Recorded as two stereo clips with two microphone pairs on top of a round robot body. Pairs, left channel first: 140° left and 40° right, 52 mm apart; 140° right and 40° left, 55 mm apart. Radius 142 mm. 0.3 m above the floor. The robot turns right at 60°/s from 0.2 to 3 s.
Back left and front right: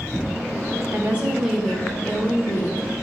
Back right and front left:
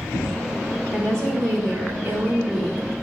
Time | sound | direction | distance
0.9 | a woman speaking | 10° left | 3 m